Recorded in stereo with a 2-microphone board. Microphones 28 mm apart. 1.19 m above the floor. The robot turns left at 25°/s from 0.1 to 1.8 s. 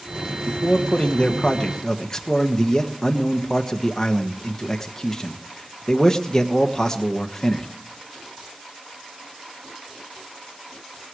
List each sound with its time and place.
0.5 s a man speaking: 50° left, 1.3 m; by 7.7 s 20° left, 1.3 m